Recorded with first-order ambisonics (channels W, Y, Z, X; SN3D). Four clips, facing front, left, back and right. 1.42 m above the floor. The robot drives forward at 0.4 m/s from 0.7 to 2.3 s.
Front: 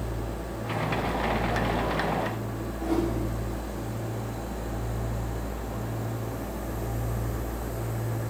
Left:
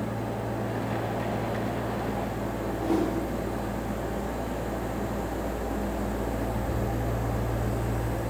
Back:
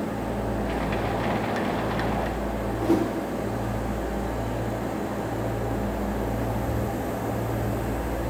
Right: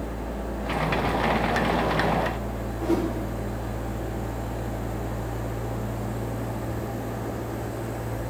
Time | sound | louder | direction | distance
2.8 | a whoosh | right 2 dB, back 4 dB | 160° right | 1.2 m